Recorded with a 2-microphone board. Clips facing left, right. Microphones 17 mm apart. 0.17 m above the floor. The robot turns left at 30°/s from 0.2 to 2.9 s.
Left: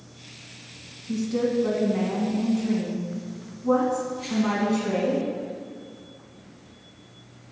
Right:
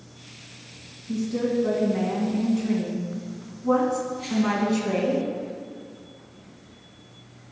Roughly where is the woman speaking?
Ahead left.